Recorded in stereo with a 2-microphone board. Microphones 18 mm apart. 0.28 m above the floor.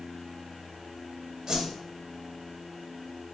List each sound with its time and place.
1.5 s a whoosh: 40° right (ahead or behind), 0.6 m